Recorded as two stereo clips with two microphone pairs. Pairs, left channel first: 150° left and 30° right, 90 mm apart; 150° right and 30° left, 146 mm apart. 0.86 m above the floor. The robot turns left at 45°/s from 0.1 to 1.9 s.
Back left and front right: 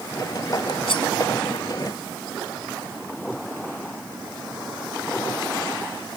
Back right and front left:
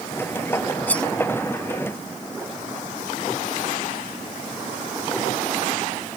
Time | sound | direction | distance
0.9 | cutlery clinking | 130° left | ?